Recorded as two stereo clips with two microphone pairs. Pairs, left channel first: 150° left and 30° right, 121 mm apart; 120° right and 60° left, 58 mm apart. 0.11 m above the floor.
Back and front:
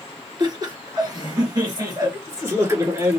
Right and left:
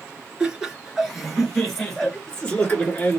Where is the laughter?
10° right, 2 m; by 3.2 s 75° right, 2 m.